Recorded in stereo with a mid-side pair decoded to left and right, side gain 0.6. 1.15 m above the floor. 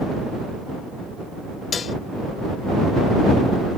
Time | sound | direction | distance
1.7 | dishes clattering | 35° left | ?